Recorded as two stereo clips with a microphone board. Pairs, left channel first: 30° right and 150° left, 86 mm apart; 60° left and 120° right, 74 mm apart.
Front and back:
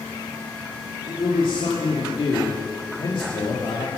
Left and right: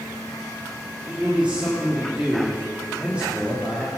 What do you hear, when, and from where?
1.1 s a man speaking: 45° right, 2 m